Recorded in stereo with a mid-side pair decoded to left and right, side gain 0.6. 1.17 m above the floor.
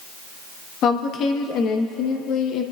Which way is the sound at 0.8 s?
55° left.